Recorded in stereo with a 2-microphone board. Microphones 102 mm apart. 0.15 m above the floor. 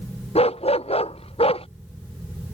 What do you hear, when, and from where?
0.3 s a dog barking: 85° left; by 1.7 s 70° left (ahead or behind)